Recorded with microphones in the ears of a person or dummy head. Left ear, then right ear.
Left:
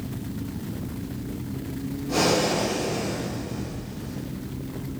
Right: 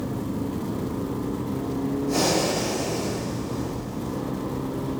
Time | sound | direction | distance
2.1 | breathing | 75° right (ahead or behind) | 1.3 m